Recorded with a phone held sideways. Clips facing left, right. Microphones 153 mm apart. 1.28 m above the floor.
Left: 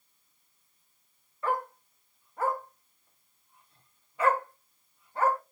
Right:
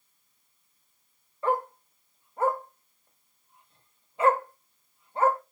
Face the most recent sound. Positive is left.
turn(degrees=-25)  # may be behind; listen again after turning